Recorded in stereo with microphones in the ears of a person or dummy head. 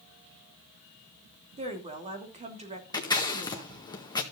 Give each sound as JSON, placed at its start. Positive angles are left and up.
{"t": 1.6, "sound": "a woman speaking", "side_deg": -35, "distance_m": 3.0}
{"t": 2.9, "sound": "scissors", "side_deg": 20, "distance_m": 1.6}